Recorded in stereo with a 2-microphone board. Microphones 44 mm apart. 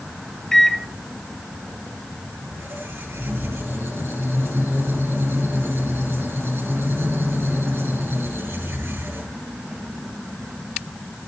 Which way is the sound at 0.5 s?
10° left (ahead or behind).